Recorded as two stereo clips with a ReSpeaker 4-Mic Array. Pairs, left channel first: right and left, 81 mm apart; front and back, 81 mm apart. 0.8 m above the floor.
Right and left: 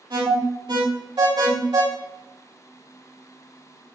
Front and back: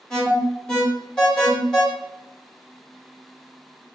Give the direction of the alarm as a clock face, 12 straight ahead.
9 o'clock.